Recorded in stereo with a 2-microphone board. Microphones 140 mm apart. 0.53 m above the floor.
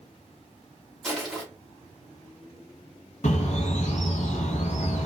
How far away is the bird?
About 0.7 m.